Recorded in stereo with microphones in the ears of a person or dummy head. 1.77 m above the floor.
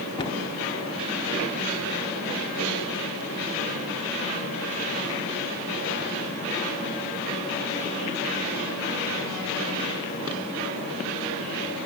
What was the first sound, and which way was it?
A cupboard door, 30° left (ahead or behind).